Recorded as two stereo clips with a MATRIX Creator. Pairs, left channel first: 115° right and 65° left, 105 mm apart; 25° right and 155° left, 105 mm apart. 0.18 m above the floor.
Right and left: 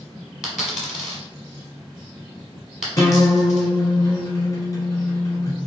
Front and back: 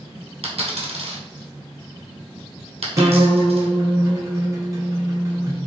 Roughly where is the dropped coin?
Behind left.